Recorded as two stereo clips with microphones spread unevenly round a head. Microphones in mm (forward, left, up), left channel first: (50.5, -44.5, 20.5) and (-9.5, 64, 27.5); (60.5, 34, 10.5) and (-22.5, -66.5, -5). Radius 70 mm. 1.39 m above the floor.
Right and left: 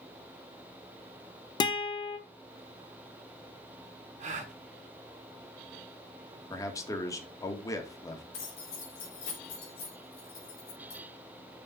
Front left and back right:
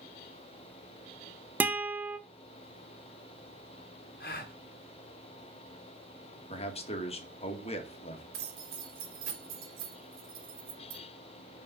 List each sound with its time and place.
1.6 s a guitar: 50° right, 1.1 m
4.2 s a gasp: 85° left, 2 m
6.5 s a man speaking: 5° left, 2.5 m
8.3 s keys jangling: 115° right, 4 m